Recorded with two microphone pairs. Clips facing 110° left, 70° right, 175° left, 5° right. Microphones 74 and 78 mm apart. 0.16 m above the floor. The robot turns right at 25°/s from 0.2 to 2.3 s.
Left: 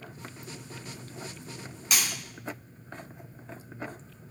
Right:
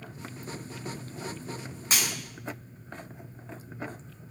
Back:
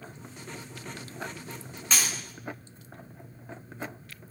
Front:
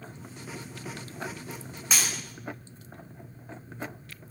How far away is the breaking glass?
About 0.9 m.